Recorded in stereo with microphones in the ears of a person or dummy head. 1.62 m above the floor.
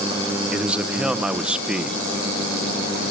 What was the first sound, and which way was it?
A man speaking, 5° right (ahead or behind).